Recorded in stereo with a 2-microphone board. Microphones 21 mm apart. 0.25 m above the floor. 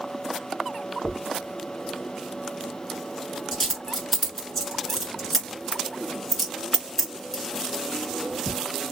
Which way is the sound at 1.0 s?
5° left (ahead or behind).